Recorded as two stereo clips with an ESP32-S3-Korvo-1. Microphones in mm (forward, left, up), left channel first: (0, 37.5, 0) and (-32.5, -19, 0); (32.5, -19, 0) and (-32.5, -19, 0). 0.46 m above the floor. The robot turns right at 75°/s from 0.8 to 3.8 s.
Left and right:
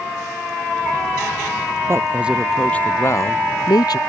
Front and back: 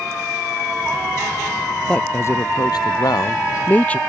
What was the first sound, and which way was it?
A man speaking, 75° right.